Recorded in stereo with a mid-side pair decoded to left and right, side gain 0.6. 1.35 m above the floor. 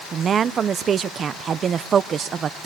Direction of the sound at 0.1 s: 40° right.